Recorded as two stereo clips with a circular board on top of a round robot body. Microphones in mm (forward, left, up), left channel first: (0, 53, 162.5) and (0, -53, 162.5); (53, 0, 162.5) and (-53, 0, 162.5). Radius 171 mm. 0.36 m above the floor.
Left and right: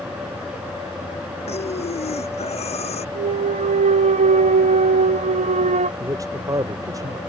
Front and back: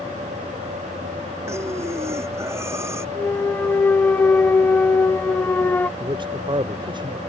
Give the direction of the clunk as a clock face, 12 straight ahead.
3 o'clock.